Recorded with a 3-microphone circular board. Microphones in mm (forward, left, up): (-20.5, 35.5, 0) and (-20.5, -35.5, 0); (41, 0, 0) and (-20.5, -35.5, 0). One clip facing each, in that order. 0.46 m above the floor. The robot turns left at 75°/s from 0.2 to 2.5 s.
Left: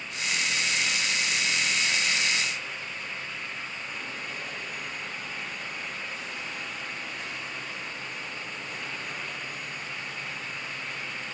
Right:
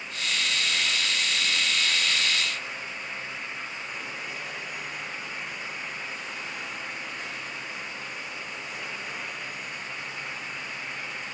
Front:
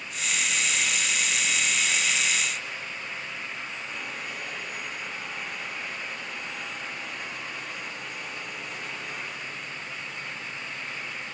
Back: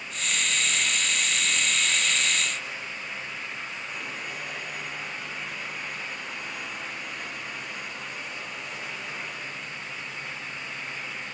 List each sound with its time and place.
Only background noise.